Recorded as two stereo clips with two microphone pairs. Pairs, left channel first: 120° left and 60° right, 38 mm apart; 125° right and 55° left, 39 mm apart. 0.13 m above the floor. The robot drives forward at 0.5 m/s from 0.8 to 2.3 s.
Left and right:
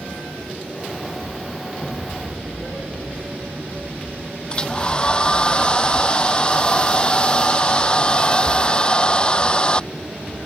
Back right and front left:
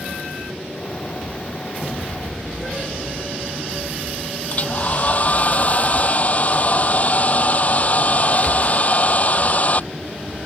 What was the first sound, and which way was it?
A hair dryer, 175° right.